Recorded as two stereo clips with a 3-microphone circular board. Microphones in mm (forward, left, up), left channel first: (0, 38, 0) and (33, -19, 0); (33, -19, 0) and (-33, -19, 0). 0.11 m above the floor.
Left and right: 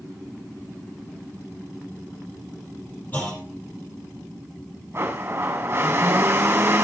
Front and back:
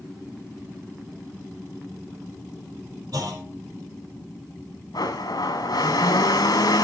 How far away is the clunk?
About 4 m.